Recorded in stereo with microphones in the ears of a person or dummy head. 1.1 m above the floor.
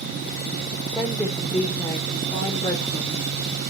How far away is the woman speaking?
About 3 m.